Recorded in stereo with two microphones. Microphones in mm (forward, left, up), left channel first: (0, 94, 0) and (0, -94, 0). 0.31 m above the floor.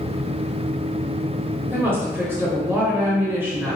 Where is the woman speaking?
10° right (ahead or behind), 0.9 m.